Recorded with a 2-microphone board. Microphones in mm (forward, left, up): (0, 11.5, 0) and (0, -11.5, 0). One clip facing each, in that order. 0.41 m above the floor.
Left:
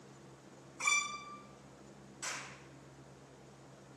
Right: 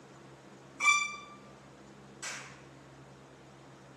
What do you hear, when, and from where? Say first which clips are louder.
0.8 s a violin: right 6 dB; 55° right (ahead or behind), 1.3 m
2.2 s a clap: even; centre (ahead or behind), 5.5 m